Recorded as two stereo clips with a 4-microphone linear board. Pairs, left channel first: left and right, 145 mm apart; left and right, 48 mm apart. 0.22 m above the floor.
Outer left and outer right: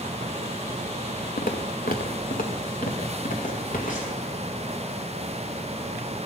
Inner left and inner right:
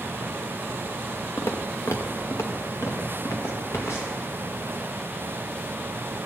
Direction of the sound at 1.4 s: 85° left.